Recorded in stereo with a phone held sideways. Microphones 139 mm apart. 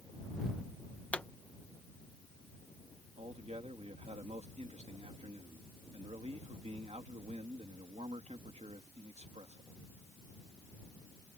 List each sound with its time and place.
1.1 s a pop: 10° left (ahead or behind)
3.2 s a man speaking: 50° right (ahead or behind)